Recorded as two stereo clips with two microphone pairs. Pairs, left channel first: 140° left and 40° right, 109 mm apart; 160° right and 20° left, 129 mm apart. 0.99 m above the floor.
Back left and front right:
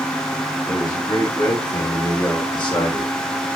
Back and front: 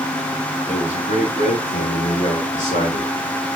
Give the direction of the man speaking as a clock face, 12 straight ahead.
5 o'clock.